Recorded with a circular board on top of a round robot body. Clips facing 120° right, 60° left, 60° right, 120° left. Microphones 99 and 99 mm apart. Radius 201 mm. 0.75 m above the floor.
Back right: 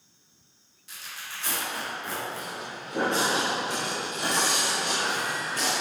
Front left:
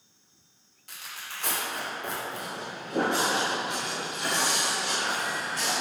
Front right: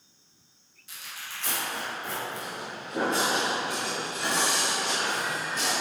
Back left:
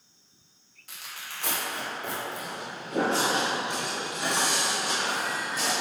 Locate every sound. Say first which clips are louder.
0.9 s tearing paper: even, even; 90° left, 2.5 m
2.3 s footsteps: even, even; 40° left, 1.2 m; by 5.7 s 160° right, 3.5 m